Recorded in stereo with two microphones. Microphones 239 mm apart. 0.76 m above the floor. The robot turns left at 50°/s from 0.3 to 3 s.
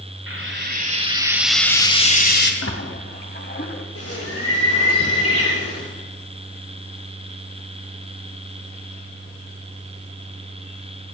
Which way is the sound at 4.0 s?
85° left.